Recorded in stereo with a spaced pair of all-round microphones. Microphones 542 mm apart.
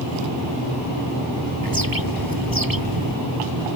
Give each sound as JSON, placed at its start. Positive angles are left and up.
{"t": 1.6, "sound": "a bird", "side_deg": -40}